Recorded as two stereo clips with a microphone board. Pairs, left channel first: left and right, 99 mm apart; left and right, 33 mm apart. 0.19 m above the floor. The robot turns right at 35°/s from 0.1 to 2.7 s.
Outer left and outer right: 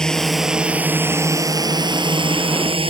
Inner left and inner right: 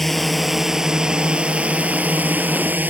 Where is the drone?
5° left (ahead or behind); by 2.9 s 65° right (ahead or behind).